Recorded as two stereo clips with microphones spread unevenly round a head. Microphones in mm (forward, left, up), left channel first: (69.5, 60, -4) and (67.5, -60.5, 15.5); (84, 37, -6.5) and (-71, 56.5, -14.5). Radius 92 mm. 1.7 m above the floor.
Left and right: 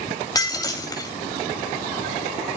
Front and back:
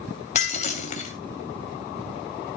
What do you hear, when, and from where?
0.3 s breaking glass: 30° left, 3 m